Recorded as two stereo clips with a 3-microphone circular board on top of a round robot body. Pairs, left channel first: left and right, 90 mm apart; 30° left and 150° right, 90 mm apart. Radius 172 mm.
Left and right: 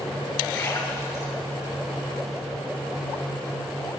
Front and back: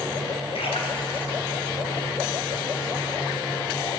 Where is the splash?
30° left, 7 m.